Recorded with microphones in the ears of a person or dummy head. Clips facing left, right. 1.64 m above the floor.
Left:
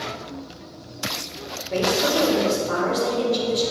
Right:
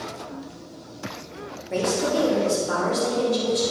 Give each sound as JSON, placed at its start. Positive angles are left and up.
{"t": 1.7, "sound": "a woman speaking", "side_deg": -25, "distance_m": 4.0}